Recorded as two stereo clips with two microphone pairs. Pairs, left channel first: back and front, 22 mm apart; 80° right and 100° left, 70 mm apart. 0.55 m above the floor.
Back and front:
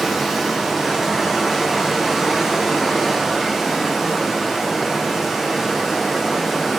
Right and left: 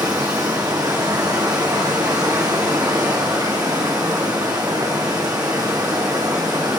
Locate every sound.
0.0 s running water: 80° left, 3.5 m